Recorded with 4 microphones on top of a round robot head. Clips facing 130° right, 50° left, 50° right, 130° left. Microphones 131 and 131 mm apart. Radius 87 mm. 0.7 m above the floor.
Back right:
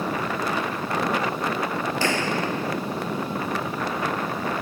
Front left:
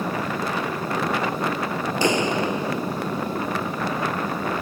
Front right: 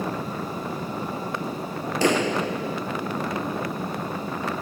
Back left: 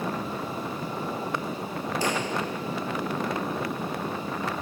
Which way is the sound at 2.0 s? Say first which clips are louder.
Front left 6 dB, front right 8 dB; 25° right.